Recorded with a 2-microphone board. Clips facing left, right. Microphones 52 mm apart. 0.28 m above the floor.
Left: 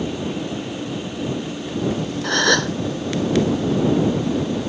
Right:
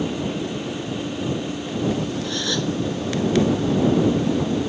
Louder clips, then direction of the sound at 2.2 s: Left 6 dB; 60° left (ahead or behind).